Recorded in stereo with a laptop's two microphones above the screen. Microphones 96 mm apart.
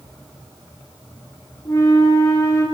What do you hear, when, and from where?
1.6 s a flute: 35° left (ahead or behind), 3 m